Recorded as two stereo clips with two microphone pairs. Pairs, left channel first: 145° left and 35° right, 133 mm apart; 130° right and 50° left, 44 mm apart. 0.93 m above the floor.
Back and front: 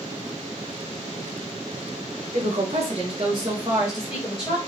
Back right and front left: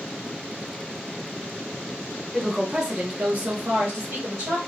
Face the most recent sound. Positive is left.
turn(degrees=50)